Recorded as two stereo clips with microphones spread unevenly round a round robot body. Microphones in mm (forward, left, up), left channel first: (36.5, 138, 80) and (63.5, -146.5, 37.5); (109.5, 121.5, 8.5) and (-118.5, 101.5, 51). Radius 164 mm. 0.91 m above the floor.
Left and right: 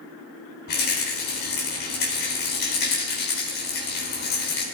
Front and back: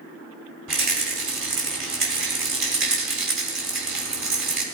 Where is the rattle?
155° left, 3.5 m.